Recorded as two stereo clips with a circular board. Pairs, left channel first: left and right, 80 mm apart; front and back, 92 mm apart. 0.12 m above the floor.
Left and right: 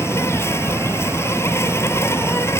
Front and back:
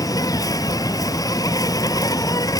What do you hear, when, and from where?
0.0 s an insect: 40° left